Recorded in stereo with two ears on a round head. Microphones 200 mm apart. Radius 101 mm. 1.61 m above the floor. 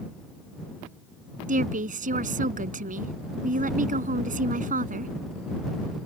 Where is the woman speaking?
40° right (ahead or behind).